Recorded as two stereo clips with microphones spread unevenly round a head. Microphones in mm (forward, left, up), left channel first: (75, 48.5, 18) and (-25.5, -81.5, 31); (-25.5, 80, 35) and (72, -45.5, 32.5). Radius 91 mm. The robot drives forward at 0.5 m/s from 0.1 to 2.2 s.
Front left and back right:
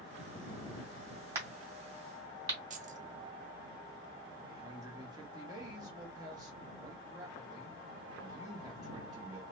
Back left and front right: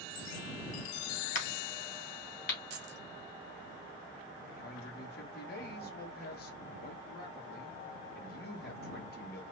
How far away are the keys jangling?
About 0.7 m.